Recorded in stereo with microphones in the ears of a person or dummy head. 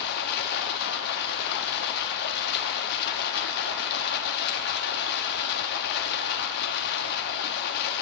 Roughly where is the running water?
Left.